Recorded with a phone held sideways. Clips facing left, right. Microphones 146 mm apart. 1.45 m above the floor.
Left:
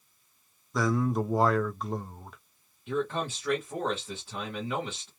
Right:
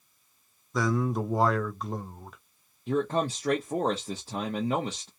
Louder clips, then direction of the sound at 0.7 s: Even; centre (ahead or behind).